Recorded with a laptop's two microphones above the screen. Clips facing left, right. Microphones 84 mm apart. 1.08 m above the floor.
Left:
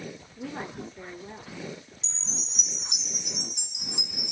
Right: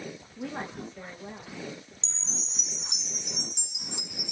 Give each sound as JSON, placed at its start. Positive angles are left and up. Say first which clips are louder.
{"t": 0.4, "sound": "a woman speaking", "louder": "even", "side_deg": -40, "distance_m": 1.5}
{"t": 2.0, "sound": "a chime", "louder": "left 1 dB", "side_deg": -25, "distance_m": 1.4}